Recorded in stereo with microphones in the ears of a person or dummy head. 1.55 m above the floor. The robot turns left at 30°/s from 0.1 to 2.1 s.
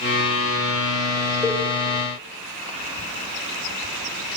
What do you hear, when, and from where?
1.4 s a cowbell: 15° left (ahead or behind), 2 m; by 1.6 s 10° left (ahead or behind), 2 m